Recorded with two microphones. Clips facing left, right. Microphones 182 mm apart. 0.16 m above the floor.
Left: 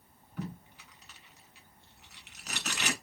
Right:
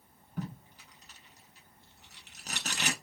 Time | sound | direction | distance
0.4 | tape being pulled | 40° right (ahead or behind) | 0.9 m